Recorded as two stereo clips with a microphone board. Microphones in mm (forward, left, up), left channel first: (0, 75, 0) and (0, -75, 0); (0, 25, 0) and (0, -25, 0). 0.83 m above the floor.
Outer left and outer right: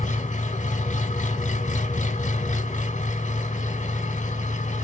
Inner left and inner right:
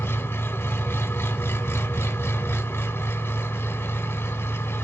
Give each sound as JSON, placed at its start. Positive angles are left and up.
{"t": 0.0, "sound": "an engine running", "side_deg": 60, "distance_m": 0.9}